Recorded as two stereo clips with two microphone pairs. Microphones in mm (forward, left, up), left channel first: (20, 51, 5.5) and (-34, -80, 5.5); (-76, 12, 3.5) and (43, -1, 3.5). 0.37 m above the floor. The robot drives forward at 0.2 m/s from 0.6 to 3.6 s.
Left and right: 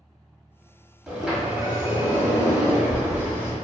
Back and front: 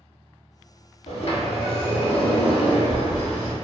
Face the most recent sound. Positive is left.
turn(degrees=170)